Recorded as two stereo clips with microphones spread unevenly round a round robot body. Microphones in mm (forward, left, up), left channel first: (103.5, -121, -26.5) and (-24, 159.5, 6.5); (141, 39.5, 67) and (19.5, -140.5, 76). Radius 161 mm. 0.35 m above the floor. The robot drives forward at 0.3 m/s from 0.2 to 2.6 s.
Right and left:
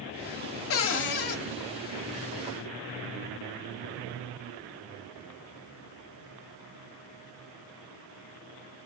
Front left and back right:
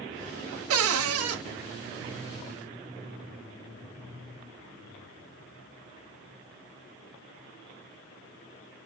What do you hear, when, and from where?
0.7 s a cupboard door: 110° right, 0.5 m; by 1.4 s 130° right, 0.6 m